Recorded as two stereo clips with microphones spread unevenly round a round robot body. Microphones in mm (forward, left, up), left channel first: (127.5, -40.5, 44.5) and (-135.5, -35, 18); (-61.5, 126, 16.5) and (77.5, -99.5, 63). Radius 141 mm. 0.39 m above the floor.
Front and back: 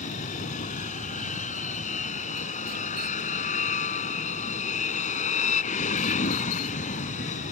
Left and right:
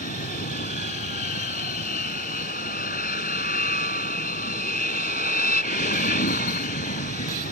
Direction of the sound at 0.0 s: 65° left.